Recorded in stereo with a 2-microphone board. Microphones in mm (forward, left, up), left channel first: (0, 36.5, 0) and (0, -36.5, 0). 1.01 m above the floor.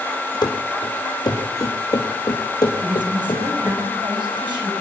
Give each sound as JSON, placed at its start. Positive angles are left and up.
{"t": 0.4, "sound": "running footsteps", "side_deg": 70, "distance_m": 3.5}
{"t": 2.8, "sound": "a woman speaking", "side_deg": -85, "distance_m": 6.5}